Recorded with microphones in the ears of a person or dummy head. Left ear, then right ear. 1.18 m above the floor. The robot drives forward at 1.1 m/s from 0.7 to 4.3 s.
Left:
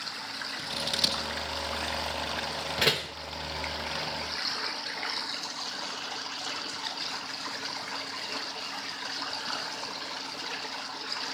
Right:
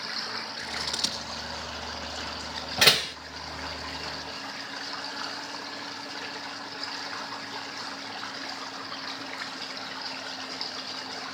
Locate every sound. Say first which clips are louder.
0.6 s scissors: left 2 dB; 20° left (ahead or behind), 1.5 m; by 1.2 s 15° left (ahead or behind), 2.0 m
2.8 s a door slam: right 7 dB; 25° right (ahead or behind), 1.0 m; by 3.2 s 40° right (ahead or behind), 0.7 m